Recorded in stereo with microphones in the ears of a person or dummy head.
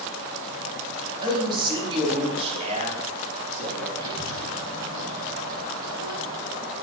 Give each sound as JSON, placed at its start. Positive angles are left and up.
{"t": 1.2, "sound": "a man speaking", "side_deg": -25, "distance_m": 4.0}
{"t": 4.0, "sound": "a child speaking", "side_deg": -25, "distance_m": 7.0}